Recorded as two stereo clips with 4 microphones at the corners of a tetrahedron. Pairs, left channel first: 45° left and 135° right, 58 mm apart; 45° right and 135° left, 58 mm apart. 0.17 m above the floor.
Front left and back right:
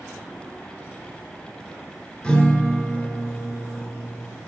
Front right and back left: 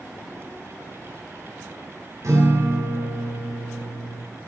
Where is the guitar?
115° left, 2.5 m.